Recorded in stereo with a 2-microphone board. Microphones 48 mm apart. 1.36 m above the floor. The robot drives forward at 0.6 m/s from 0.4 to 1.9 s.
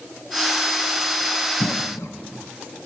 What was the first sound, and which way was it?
A cough, 80° left.